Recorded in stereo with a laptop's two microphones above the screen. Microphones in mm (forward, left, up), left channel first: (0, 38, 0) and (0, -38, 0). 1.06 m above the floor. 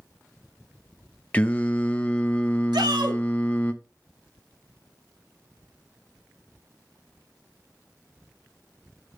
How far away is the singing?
About 0.5 m.